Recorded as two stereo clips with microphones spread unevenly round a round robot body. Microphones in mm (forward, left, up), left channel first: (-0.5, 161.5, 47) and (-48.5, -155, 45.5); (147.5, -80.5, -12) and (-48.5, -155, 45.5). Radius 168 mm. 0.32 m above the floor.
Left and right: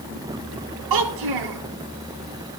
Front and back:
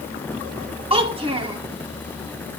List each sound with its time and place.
0.9 s a child speaking: 90° right, 1.7 m